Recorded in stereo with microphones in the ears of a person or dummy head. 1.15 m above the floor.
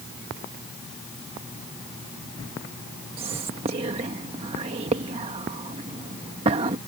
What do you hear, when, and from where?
3.2 s whispering: 25° right (ahead or behind)